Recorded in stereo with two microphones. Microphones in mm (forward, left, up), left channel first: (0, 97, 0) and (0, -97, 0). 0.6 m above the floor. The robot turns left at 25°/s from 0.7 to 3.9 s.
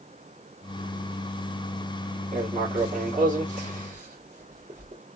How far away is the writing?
About 1.4 m.